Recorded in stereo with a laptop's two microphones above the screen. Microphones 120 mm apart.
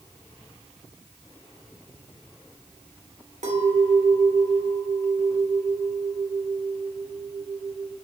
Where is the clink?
75° right (ahead or behind), 1.8 m.